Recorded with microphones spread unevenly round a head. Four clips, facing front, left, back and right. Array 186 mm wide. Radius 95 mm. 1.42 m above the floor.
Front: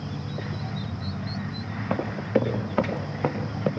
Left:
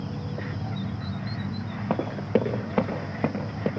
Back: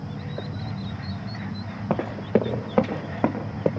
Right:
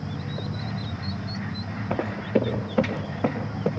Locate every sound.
1.9 s running footsteps: 145° left, 4 m; by 3.7 s 175° left, 4.5 m